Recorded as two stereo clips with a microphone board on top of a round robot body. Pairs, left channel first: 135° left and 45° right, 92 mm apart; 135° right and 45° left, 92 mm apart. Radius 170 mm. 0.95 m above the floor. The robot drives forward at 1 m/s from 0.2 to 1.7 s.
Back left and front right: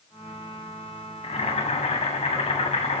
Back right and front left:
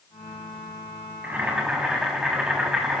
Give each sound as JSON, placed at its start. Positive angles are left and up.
{"t": 1.2, "sound": "boiling", "azimuth_deg": 115, "distance_m": 2.5}